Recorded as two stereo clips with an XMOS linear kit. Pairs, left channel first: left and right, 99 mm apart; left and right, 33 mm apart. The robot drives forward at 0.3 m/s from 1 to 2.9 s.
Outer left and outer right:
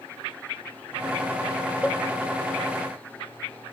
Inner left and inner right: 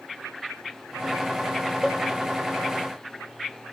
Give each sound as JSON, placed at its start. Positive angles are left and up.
{"t": 1.8, "sound": "a cowbell", "side_deg": 20, "distance_m": 1.0}